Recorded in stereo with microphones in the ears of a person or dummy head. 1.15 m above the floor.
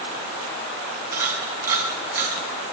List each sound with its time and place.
1.1 s a camera shutter: 10° right (ahead or behind), 4.5 m